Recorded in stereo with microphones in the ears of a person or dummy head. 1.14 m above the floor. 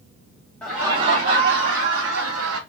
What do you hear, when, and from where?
0.6 s laughter: 5° left (ahead or behind), 0.7 m; by 2.6 s 75° right (ahead or behind), 1.4 m